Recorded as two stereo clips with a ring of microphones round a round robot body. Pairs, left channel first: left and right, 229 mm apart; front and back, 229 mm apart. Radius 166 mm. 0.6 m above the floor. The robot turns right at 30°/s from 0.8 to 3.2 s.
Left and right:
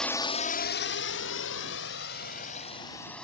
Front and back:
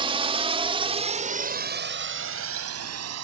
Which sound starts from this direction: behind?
A drone, at 0.0 s.